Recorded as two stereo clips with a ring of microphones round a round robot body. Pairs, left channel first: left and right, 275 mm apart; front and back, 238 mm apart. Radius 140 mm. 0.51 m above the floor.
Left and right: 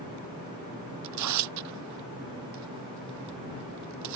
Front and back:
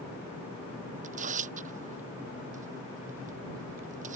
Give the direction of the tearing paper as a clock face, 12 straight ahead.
4 o'clock.